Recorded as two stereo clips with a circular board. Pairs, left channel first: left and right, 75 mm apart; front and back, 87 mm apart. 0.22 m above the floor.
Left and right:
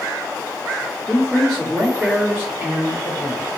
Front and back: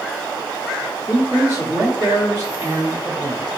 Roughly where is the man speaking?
Behind.